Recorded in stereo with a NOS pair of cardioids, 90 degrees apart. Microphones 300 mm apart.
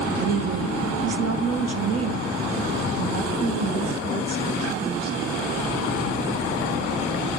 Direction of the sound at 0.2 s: 40° right.